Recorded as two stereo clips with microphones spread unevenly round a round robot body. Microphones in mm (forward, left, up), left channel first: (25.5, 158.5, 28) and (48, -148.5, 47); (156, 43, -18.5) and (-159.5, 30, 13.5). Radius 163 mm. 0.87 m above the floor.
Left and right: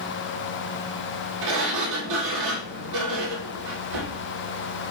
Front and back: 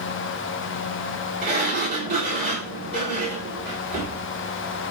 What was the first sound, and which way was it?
A sliding door, 120° right.